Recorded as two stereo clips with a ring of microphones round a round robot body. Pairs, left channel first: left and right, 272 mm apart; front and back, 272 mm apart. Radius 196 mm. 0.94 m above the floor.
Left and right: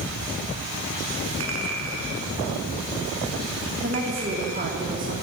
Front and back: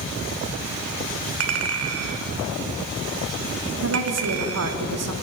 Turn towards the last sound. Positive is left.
turn(degrees=-155)